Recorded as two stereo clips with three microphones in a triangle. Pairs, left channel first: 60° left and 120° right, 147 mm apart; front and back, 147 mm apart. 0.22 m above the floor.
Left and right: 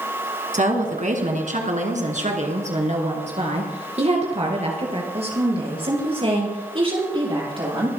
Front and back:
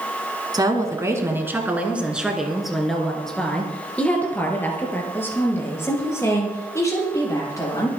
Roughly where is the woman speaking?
Behind right.